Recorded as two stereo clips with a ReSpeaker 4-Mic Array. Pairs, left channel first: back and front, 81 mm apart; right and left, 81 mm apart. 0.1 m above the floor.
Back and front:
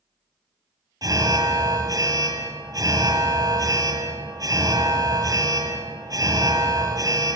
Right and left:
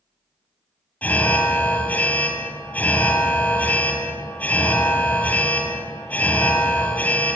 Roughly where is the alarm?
Ahead right.